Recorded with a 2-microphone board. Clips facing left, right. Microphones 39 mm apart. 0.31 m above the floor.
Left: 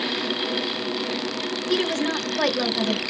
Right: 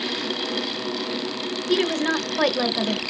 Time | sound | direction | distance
1.7 | a woman speaking | 15° right (ahead or behind) | 0.9 m